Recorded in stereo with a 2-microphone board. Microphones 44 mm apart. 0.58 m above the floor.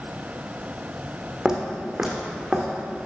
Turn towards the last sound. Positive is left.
turn(degrees=0)  # may be behind; listen again after turning